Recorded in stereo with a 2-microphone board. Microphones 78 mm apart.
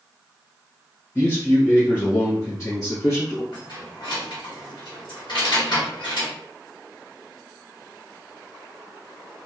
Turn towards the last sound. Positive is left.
turn(degrees=70)  # may be behind; listen again after turning